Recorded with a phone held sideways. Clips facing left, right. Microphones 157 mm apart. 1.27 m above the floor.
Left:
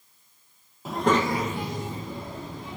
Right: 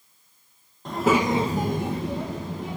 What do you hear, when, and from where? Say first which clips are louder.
0.8 s a child speaking: right 2 dB; 5° left (ahead or behind), 0.8 m; by 2.8 s 75° right (ahead or behind), 1.1 m